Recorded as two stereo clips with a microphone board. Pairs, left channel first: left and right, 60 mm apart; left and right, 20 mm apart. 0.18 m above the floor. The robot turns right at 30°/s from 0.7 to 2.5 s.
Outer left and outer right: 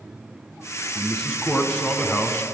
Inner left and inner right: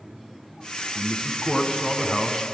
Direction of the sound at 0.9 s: 10° left.